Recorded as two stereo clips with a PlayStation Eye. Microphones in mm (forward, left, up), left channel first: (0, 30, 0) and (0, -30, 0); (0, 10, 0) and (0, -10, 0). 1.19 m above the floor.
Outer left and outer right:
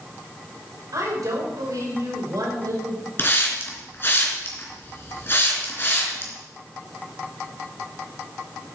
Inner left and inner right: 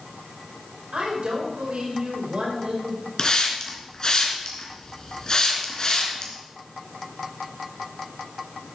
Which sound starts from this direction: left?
A hiss, at 3.2 s.